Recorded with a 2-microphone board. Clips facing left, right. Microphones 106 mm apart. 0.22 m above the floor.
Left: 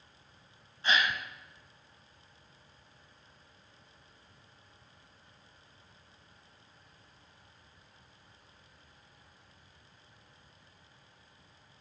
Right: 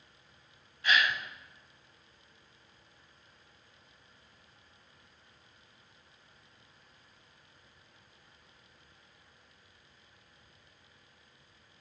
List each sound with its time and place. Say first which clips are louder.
0.8 s a gasp: right 1 dB; 30° left (ahead or behind), 0.5 m